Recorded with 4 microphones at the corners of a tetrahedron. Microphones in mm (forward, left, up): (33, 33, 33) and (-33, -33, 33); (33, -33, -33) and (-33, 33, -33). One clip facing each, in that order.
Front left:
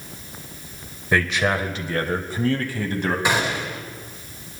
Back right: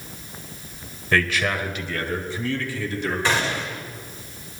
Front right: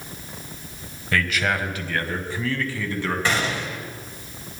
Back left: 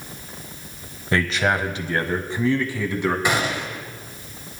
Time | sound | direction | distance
1.1 | a man speaking | 105° left | 1.1 m
3.2 | a gunshot | 90° left | 1.5 m